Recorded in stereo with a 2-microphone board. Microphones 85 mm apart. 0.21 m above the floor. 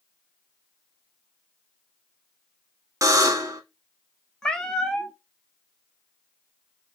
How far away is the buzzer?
About 0.6 m.